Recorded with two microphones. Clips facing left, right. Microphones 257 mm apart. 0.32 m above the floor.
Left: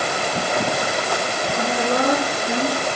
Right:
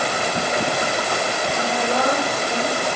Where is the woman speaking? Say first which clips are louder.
Left 3 dB; 60° left (ahead or behind), 4 m; by 2.9 s 70° left (ahead or behind), 4 m.